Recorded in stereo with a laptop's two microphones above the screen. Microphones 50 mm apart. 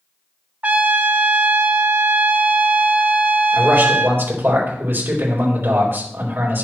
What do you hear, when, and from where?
0.6 s a trumpet: 30° right (ahead or behind), 0.6 m
3.5 s a man speaking: 45° right (ahead or behind), 3.5 m